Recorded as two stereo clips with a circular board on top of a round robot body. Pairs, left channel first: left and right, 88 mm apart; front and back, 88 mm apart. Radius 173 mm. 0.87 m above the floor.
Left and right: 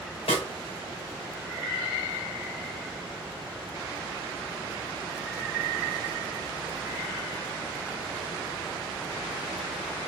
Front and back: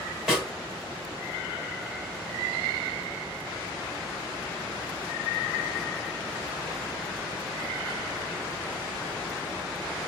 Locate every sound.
0.3 s a snare drum: 95° left, 2 m